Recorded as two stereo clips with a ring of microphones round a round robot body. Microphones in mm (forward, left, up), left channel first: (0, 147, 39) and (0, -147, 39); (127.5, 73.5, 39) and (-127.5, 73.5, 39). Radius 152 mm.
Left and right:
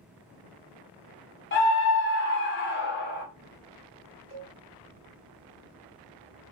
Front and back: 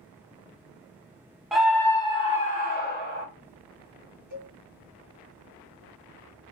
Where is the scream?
95° left, 1.0 m; by 3.2 s 40° left, 1.5 m.